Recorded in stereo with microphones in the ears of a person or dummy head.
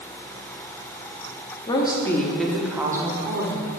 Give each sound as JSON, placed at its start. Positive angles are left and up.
{"t": 1.7, "sound": "a woman speaking", "side_deg": 25, "distance_m": 1.0}